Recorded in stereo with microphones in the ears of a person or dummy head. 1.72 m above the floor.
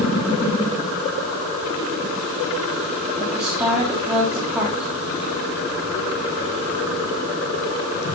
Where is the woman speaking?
10° right (ahead or behind), 3.5 m.